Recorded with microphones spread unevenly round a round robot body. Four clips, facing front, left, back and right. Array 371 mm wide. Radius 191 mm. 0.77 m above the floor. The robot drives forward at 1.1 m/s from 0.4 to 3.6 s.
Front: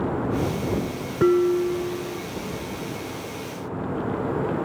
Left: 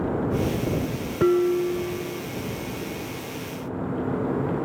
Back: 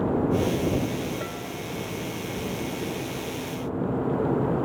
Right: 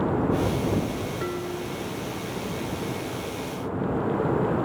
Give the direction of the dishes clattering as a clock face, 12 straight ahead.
11 o'clock.